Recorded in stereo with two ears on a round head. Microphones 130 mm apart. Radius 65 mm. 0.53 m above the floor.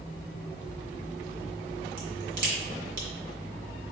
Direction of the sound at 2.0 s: 70° right (ahead or behind).